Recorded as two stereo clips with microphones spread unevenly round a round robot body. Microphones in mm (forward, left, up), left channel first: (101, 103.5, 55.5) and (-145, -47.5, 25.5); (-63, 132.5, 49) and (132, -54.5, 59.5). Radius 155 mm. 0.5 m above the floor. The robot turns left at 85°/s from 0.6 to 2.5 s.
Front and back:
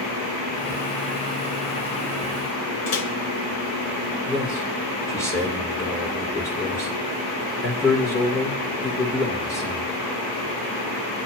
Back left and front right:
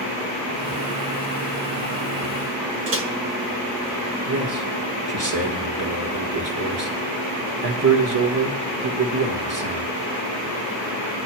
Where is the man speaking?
50° right, 1.6 m.